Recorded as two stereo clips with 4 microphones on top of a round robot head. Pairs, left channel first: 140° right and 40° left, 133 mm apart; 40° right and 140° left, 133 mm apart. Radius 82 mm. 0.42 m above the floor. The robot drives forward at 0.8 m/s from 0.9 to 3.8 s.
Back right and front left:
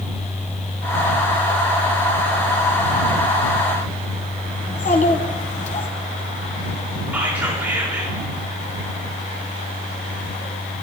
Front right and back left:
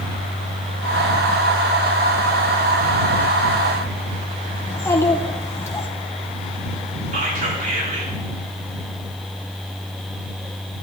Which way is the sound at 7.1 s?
115° left.